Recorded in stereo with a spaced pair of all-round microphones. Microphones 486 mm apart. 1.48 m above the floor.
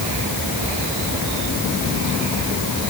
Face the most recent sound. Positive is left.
No sound to turn to.